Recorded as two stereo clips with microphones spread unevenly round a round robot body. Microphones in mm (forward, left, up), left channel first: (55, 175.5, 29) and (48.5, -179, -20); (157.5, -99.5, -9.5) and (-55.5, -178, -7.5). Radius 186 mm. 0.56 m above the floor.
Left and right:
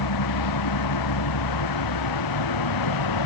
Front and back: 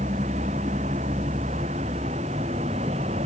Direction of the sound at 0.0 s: 125° left.